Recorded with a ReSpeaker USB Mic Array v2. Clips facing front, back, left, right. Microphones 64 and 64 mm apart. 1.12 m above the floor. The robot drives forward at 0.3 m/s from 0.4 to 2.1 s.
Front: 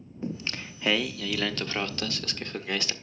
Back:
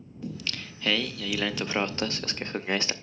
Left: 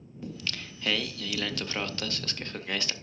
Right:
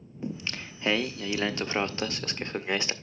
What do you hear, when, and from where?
0.2 s singing: 40° right, 0.5 m; by 2.9 s 140° right, 0.5 m